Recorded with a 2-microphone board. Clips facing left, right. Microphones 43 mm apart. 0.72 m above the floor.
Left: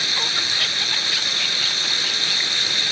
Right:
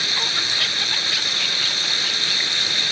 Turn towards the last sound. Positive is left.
turn(degrees=-5)  # may be behind; listen again after turning